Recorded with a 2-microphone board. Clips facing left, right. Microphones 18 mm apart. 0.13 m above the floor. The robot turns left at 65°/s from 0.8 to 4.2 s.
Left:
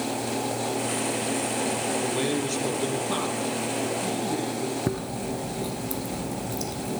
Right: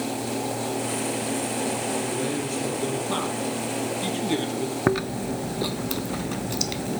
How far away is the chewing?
About 0.7 m.